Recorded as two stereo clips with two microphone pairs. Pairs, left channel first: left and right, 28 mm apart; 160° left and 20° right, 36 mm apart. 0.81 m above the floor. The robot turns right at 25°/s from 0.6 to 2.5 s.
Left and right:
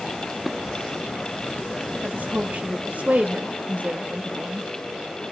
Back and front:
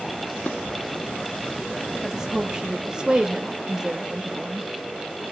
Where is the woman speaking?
95° right, 0.8 m; by 4.7 s 85° right, 0.8 m.